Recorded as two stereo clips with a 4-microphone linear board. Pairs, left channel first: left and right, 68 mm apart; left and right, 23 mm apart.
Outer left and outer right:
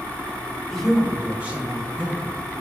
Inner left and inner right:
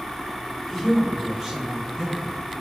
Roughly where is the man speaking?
Centre.